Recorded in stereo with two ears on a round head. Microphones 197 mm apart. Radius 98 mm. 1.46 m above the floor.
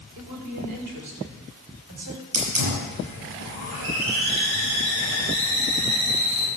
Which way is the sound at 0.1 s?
85° right.